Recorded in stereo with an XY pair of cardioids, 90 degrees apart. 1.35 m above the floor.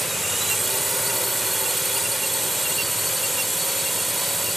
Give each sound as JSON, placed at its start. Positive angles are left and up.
{"t": 0.0, "sound": "a drone", "azimuth_deg": -10}